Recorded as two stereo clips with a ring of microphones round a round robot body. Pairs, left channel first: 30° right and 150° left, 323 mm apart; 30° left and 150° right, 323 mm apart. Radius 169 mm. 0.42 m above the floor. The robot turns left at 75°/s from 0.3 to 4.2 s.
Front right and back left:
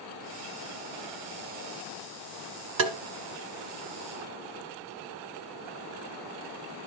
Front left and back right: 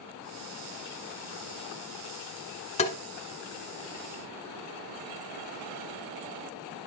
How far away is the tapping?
About 1.1 m.